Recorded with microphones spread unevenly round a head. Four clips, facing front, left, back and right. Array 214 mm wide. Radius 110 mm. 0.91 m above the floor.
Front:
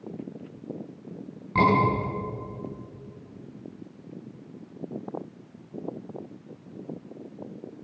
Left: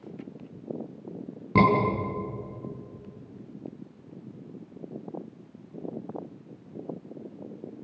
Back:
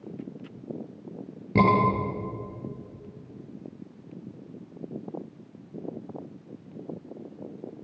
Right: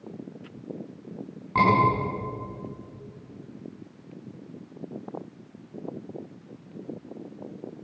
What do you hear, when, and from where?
1.6 s a scream: 120° left, 10 m